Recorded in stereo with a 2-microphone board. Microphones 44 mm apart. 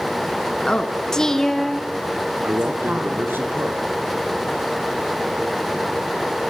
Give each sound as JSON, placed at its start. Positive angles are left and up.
{"t": 0.7, "sound": "a woman speaking", "side_deg": 20, "distance_m": 2.0}
{"t": 2.4, "sound": "a man speaking", "side_deg": -65, "distance_m": 2.5}